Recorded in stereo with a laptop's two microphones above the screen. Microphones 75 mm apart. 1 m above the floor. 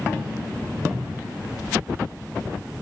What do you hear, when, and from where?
0.9 s a cupboard door: 10° right (ahead or behind), 1.6 m